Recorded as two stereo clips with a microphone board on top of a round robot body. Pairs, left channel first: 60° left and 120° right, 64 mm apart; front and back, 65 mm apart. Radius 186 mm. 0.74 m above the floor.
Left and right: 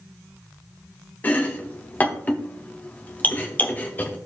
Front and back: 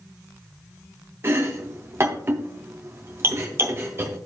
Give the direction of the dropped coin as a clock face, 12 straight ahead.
No dropped coin in this recording.